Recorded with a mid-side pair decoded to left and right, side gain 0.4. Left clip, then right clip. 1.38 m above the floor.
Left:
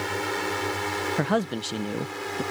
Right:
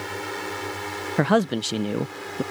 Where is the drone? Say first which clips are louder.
Left 3 dB; 20° left.